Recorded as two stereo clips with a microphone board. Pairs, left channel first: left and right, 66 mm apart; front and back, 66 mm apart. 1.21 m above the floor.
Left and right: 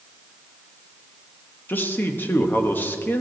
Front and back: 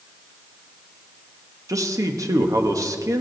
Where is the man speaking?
150° left, 1.2 m.